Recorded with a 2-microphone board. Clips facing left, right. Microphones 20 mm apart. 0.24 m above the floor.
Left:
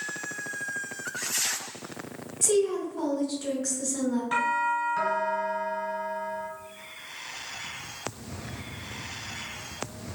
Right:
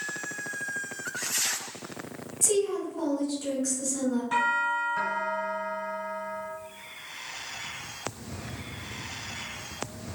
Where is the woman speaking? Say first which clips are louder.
Left 2 dB; 10° left (ahead or behind), 1.0 m.